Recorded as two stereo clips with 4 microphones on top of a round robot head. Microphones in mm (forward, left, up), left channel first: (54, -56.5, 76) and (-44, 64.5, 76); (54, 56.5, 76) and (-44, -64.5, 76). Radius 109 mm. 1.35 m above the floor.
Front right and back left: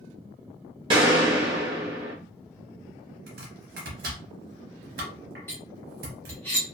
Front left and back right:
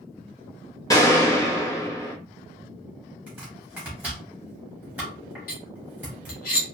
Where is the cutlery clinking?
25° left, 0.7 m.